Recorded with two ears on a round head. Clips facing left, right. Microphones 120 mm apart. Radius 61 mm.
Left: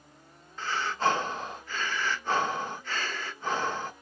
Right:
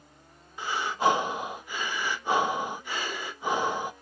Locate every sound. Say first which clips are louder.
0.6 s breathing: right 2 dB; 15° right (ahead or behind), 0.6 m